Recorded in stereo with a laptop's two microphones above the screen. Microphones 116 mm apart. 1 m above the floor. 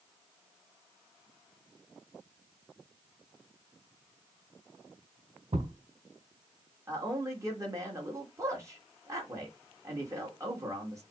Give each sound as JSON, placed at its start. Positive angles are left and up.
{"t": 5.5, "sound": "a thud", "side_deg": -65, "distance_m": 1.2}
{"t": 6.9, "sound": "a man speaking", "side_deg": -25, "distance_m": 1.6}